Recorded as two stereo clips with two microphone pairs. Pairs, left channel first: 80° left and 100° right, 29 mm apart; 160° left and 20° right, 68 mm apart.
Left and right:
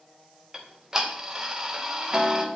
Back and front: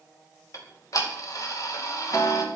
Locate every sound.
0.5 s ticking: 165° right, 2 m